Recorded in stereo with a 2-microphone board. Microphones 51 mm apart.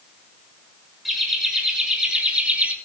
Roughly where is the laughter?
Centre.